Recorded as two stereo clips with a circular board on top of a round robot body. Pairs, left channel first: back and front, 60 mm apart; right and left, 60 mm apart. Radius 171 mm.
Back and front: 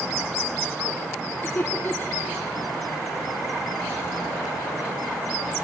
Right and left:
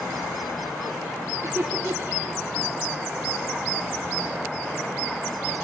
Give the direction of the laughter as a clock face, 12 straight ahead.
8 o'clock.